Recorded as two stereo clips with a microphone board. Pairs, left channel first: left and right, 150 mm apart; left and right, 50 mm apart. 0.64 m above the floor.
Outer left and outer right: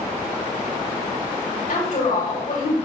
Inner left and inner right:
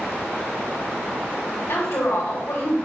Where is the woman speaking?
80° left, 3 m.